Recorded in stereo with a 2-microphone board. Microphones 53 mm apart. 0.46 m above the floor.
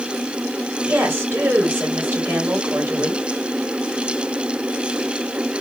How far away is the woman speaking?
About 2 m.